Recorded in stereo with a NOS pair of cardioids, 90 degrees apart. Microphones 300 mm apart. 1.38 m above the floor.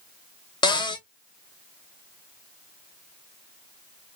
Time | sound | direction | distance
0.6 | a cupboard door | 15° left | 0.6 m